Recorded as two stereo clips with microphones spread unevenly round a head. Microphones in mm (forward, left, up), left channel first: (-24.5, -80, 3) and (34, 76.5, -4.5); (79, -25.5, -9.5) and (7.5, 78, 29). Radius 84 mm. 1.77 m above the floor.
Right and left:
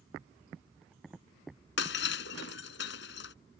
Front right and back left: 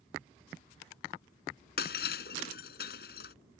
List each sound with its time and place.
1.8 s breaking glass: 95° right